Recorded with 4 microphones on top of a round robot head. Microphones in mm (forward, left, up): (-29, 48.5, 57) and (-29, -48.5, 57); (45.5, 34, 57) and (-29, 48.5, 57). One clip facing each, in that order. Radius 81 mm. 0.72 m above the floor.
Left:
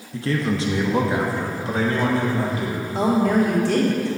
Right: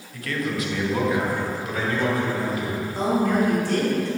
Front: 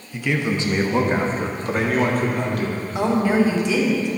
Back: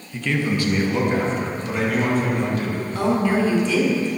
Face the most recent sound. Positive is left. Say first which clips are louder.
# left 3 dB, front 2 dB
turn(degrees=65)